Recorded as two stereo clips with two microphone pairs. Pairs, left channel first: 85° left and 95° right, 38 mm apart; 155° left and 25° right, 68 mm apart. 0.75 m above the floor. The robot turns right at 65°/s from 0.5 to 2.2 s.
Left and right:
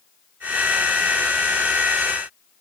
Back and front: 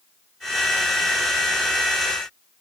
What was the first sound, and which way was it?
Only background noise.